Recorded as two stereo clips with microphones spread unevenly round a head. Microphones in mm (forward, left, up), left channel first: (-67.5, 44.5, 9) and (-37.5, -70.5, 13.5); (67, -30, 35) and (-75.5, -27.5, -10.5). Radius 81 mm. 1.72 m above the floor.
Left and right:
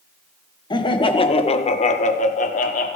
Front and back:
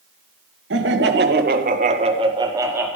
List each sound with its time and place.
0.7 s laughter: 155° left, 1.6 m; by 3.0 s 90° left, 1.4 m